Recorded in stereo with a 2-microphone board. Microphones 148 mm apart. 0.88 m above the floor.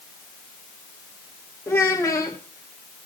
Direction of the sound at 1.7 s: 20° left (ahead or behind).